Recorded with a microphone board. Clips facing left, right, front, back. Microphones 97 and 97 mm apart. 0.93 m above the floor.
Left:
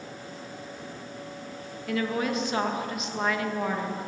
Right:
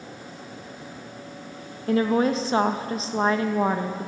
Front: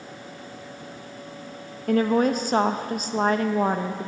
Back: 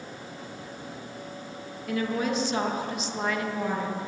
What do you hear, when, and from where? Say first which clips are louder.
1.9 s a woman speaking: right 7 dB, front 8 dB; 35° right, 0.7 m